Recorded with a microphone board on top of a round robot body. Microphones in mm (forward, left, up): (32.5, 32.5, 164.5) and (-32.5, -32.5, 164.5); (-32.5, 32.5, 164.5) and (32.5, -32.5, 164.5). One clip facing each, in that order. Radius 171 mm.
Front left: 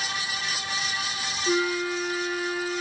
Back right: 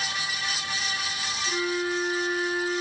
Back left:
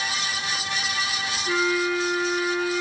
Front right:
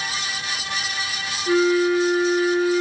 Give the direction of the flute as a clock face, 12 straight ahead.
11 o'clock.